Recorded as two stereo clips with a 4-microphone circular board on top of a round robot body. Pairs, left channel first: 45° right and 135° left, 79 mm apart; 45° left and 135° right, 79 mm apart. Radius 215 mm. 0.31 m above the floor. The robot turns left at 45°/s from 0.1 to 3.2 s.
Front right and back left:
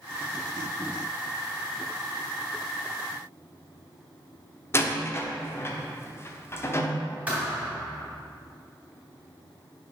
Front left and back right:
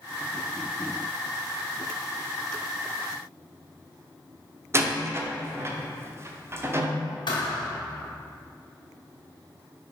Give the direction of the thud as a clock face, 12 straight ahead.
10 o'clock.